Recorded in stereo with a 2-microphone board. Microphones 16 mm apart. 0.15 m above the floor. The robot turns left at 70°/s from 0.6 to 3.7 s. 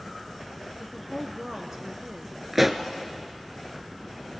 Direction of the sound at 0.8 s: 10° left.